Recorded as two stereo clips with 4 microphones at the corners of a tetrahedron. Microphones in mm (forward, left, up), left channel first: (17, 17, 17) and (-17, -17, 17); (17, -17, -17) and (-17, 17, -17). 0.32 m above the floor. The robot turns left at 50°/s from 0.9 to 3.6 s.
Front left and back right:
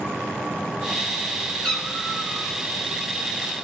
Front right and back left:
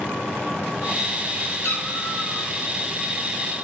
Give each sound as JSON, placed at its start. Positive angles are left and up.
{"t": 1.6, "sound": "a cat meowing", "azimuth_deg": -30, "distance_m": 2.5}